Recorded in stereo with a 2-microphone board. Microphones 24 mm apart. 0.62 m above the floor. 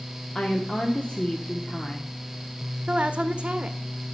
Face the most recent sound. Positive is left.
turn(degrees=-55)  # may be behind; listen again after turning